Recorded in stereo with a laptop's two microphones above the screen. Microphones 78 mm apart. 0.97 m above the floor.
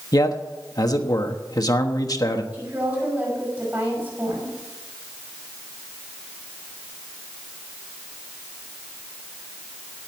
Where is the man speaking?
50° left (ahead or behind), 1.2 m.